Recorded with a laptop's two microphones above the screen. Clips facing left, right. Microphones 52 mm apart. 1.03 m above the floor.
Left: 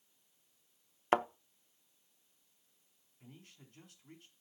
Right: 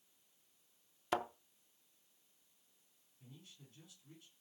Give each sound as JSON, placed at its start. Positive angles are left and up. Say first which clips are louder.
{"t": 1.1, "sound": "a thud", "louder": "left 7 dB", "side_deg": 40, "distance_m": 0.6}
{"t": 3.2, "sound": "a man speaking", "louder": "left 3 dB", "side_deg": 60, "distance_m": 3.0}